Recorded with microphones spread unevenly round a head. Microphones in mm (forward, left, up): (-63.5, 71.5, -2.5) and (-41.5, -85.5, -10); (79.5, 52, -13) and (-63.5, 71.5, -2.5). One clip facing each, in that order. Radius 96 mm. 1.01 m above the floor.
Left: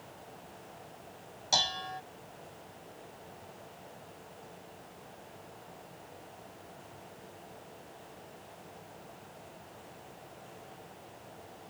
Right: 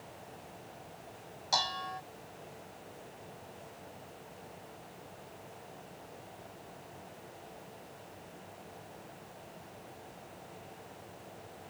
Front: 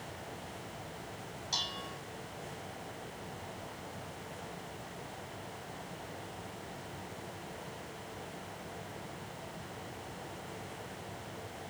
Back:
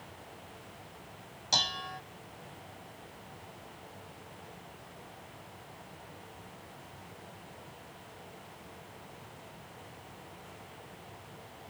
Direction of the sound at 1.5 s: 160° left.